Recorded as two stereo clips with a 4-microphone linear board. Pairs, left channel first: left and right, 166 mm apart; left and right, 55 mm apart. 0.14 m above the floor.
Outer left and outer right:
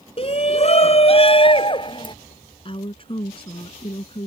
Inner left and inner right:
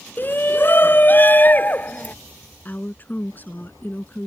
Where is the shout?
35° left (ahead or behind); by 2.1 s 30° left (ahead or behind).